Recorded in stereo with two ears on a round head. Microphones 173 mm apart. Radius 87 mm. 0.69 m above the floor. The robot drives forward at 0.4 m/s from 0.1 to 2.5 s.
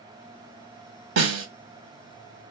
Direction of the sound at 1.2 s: 65° right (ahead or behind).